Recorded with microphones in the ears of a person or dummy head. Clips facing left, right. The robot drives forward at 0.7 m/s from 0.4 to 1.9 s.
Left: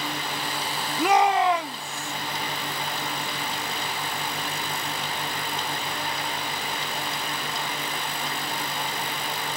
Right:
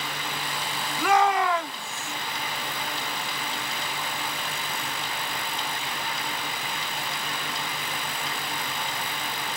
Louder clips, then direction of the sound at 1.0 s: Left 2 dB; 20° left (ahead or behind).